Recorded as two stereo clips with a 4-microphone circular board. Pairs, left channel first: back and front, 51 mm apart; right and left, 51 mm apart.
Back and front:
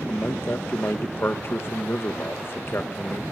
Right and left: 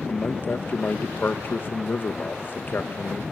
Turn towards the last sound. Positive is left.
turn(degrees=-135)